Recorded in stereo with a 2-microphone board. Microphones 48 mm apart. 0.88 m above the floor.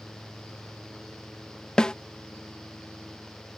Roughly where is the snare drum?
Centre.